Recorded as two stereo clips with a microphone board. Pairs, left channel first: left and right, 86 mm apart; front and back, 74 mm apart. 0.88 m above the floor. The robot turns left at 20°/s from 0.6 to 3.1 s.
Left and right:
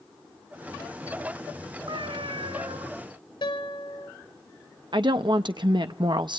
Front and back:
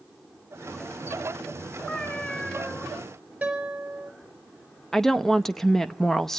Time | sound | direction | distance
1.9 | a cat meowing | 65° right | 6.5 m
3.4 | a guitar | 105° left | 4.5 m
4.9 | a woman speaking | 85° right | 0.7 m